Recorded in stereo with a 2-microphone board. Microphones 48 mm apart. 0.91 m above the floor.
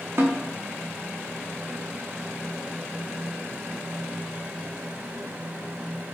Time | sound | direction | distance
0.2 | a snare drum | 60° right (ahead or behind) | 0.8 m